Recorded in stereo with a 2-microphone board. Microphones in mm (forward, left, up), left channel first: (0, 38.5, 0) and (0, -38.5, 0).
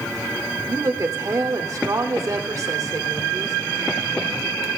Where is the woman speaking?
45° right (ahead or behind), 1.9 m.